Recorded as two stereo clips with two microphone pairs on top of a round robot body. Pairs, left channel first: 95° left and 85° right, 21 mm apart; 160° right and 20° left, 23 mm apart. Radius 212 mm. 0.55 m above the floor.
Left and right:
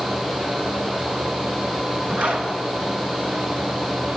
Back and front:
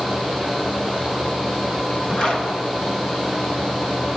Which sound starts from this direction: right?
A zipper, at 2.1 s.